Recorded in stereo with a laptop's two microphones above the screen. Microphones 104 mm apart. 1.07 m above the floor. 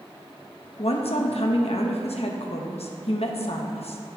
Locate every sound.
0.8 s a woman speaking: 75° left (ahead or behind), 0.9 m